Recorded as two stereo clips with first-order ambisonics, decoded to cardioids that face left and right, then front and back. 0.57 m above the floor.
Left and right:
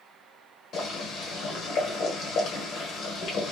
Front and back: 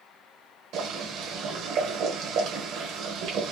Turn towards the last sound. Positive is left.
turn(degrees=140)